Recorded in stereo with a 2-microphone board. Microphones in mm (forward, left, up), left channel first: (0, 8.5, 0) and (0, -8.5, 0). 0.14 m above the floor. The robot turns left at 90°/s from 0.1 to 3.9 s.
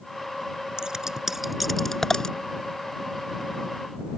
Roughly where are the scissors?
Right.